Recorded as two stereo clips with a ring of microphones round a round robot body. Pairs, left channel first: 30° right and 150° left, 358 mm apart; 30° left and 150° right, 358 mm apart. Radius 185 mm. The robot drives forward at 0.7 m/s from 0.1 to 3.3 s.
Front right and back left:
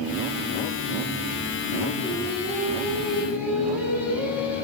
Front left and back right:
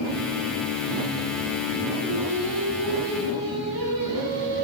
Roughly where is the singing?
Right.